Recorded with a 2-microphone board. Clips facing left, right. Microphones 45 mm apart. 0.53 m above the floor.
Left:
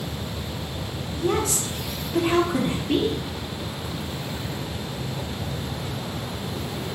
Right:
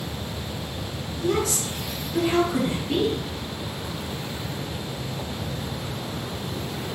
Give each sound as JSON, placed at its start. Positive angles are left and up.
{"t": 1.2, "sound": "a woman speaking", "side_deg": 30, "distance_m": 0.8}